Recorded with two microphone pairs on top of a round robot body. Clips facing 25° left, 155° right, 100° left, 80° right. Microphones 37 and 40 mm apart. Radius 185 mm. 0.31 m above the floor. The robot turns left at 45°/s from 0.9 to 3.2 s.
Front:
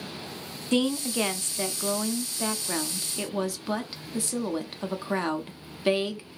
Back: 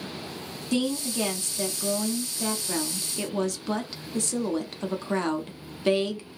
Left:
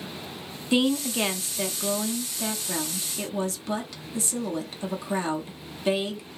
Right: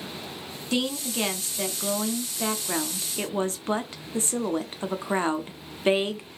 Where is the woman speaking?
50° left, 1.0 m; by 6.3 s 55° right, 1.0 m.